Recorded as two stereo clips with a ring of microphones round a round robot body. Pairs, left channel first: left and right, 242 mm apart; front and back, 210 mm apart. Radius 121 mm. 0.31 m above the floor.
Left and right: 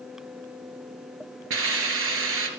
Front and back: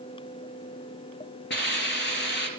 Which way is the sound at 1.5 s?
50° right.